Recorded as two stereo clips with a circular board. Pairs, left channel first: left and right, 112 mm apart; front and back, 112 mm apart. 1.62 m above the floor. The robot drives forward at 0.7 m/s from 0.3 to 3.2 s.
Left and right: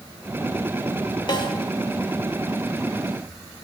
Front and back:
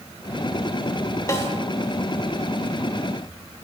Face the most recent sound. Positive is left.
turn(degrees=110)